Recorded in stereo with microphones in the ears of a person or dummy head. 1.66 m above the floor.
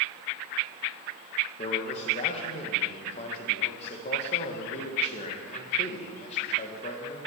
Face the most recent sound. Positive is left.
turn(degrees=35)  # may be behind; listen again after turning